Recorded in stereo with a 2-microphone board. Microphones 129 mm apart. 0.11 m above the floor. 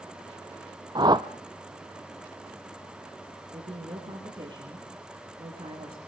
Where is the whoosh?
40° right (ahead or behind), 0.7 m.